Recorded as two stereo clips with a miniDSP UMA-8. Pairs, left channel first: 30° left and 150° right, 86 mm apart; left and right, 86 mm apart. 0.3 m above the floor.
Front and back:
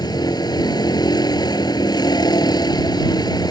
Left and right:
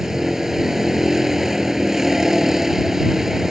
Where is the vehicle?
5° right.